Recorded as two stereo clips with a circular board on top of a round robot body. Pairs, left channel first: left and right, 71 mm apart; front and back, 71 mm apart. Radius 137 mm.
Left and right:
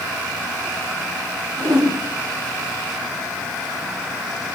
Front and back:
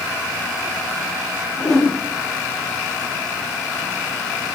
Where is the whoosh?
75° right, 9 m.